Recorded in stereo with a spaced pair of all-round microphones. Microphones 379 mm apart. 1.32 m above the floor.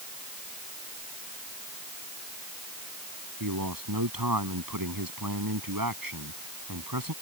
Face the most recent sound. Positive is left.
turn(degrees=-60)  # may be behind; listen again after turning